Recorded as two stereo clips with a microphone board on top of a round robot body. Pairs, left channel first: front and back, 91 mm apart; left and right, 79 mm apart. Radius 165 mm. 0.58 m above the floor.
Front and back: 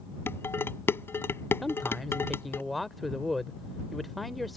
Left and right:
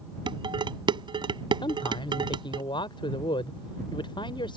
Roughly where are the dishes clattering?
Ahead right.